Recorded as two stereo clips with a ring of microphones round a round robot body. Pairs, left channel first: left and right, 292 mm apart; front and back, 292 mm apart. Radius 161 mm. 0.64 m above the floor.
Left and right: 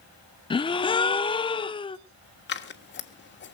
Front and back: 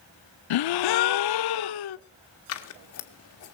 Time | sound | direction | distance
0.5 | a gasp | 15° left | 0.5 m
2.5 | scissors | 40° left | 1.4 m